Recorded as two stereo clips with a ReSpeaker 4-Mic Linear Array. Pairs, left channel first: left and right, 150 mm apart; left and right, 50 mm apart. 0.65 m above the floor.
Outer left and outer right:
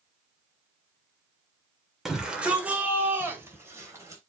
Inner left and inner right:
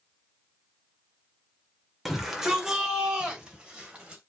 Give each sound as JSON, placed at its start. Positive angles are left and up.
{"t": 2.0, "sound": "a shout", "side_deg": -5, "distance_m": 2.0}